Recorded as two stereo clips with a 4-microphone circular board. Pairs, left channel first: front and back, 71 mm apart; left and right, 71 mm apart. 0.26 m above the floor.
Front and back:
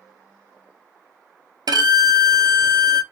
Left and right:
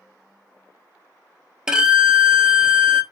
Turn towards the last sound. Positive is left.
turn(degrees=-170)